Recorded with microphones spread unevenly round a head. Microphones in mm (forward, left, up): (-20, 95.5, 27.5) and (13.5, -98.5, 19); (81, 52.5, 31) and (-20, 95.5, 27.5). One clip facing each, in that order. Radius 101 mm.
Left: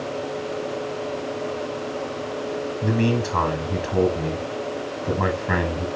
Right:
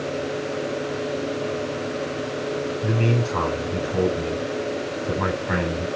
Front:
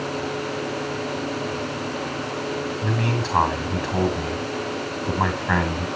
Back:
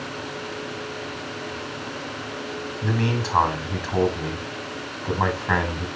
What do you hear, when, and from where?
2.8 s a man speaking: 70° left, 8.5 m